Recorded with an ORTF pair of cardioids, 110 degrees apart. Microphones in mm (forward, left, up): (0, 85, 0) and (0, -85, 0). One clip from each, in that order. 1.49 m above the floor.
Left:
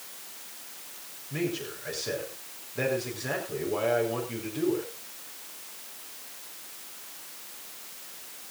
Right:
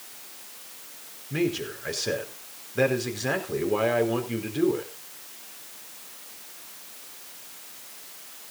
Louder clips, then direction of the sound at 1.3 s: Right 5 dB; 35° right.